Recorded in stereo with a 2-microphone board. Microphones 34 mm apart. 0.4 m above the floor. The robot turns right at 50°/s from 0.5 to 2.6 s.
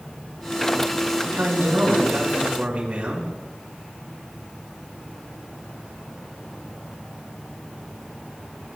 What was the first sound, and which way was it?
A man speaking, 110° right.